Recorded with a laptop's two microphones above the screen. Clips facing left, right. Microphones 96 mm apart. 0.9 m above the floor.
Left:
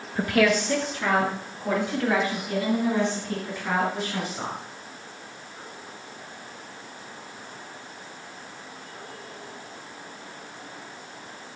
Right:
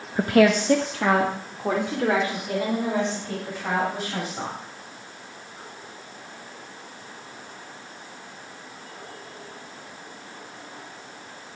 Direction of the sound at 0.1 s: 20° right (ahead or behind).